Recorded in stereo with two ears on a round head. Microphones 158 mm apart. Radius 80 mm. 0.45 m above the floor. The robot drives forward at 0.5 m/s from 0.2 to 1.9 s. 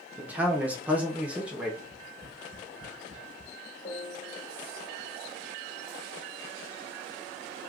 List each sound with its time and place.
0.2 s a man speaking: 10° right (ahead or behind), 0.8 m; by 1.7 s 5° right (ahead or behind), 0.9 m
1.8 s tapping: 40° right (ahead or behind), 1.0 m; by 3.5 s 45° right (ahead or behind), 1.0 m
3.9 s a piano: 35° left (ahead or behind), 1.3 m